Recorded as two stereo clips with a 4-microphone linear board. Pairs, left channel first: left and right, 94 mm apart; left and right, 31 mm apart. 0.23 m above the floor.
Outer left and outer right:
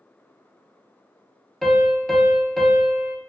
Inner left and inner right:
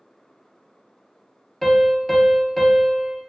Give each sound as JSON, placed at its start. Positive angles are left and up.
{"t": 1.6, "sound": "a piano", "side_deg": 0, "distance_m": 0.6}